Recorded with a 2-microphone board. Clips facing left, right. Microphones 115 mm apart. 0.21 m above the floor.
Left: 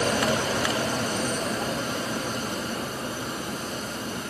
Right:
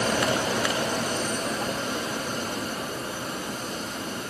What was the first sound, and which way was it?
Only background noise.